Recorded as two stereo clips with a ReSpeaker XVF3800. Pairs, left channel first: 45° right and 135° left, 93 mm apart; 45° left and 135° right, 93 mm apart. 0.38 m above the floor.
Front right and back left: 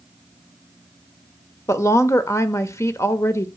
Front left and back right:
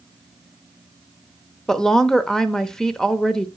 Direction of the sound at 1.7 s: 35° right.